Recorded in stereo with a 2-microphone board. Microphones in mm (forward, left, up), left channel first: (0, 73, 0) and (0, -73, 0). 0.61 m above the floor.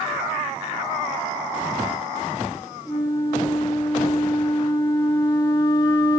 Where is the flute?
30° left (ahead or behind), 3 m.